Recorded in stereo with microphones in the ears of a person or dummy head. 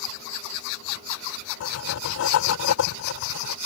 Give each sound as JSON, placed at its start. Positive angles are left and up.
{"t": 1.6, "sound": "writing", "side_deg": 75}